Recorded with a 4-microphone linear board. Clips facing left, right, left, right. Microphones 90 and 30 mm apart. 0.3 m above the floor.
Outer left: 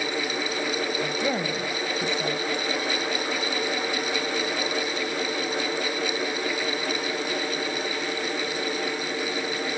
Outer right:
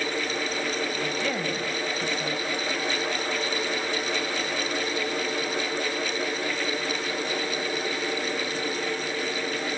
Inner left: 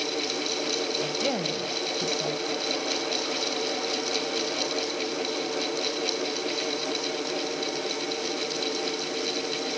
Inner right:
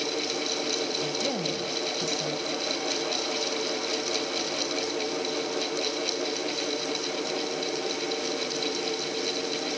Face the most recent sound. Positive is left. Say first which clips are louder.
# outer left 2 dB, inner left 1 dB
turn(degrees=20)  # may be behind; listen again after turning